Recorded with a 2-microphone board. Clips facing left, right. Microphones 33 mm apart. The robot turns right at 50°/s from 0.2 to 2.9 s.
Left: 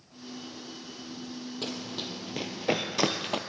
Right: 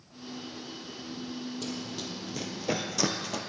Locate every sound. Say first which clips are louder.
1.6 s running footsteps: left 1 dB; 45° left (ahead or behind), 1.1 m